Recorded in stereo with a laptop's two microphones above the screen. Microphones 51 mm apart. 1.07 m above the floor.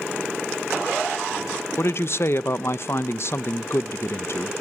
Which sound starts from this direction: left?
A woman speaking, at 1.8 s.